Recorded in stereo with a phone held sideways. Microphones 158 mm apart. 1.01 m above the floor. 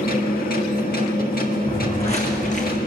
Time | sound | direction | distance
0.0 | a machine running | 70° left (ahead or behind) | 1.6 m
1.7 | footsteps | 35° left (ahead or behind) | 3 m